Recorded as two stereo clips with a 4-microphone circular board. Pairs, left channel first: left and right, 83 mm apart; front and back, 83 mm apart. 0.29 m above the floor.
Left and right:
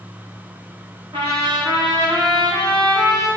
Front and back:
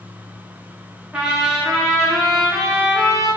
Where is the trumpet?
105° right, 5.5 m.